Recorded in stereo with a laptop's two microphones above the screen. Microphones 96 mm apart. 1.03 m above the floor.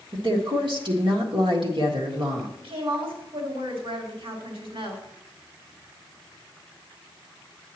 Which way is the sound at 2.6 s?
75° right (ahead or behind).